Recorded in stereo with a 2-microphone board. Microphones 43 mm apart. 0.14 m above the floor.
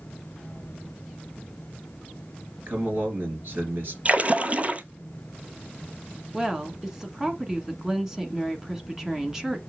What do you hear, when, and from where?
2.7 s a man speaking: 55° right (ahead or behind), 3 m
4.0 s a splash: 35° right (ahead or behind), 0.6 m
6.3 s a woman speaking: 10° right (ahead or behind), 1.2 m